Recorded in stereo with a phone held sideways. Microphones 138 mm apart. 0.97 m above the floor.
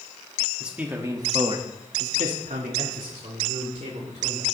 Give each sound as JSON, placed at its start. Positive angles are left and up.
{"t": 0.6, "sound": "a man speaking", "side_deg": -10, "distance_m": 2.0}